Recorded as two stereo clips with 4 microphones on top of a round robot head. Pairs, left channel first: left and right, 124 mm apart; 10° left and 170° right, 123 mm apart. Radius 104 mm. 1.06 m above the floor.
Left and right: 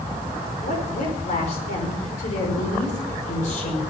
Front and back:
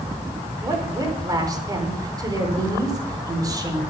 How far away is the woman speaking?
About 4.5 m.